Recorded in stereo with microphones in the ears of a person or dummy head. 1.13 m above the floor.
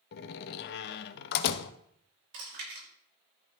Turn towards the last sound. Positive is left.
turn(degrees=-60)  # may be behind; listen again after turning